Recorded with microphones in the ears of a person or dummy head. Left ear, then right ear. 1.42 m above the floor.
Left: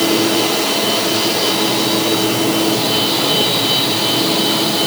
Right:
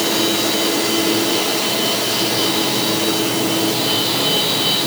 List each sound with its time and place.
Only background noise.